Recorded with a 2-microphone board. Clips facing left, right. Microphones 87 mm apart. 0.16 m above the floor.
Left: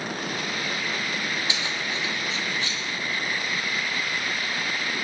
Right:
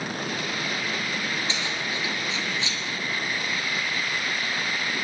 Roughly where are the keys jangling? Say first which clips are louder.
Even; centre.